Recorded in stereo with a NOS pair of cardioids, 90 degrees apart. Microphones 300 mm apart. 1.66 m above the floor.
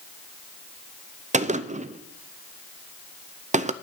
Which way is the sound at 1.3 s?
25° right.